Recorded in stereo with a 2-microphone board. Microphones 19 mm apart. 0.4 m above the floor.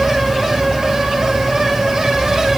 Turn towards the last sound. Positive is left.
No sound to turn to.